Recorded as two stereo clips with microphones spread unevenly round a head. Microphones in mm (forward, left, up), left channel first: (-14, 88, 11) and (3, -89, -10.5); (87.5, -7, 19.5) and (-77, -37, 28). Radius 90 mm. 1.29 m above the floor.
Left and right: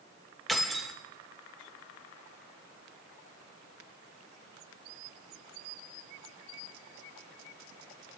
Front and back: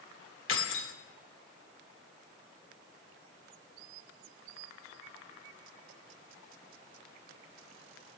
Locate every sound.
0.5 s keys jangling: 10° left, 2.5 m